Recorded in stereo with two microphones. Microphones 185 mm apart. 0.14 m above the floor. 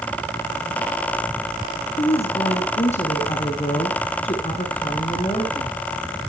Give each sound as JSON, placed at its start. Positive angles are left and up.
{"t": 2.0, "sound": "a woman speaking", "side_deg": 35, "distance_m": 2.0}